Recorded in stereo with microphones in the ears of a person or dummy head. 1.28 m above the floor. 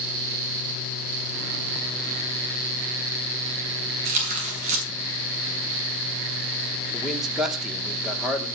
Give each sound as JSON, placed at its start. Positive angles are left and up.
{"t": 4.0, "sound": "tearing paper", "side_deg": -35, "distance_m": 5.0}
{"t": 6.9, "sound": "a man speaking", "side_deg": 5, "distance_m": 2.0}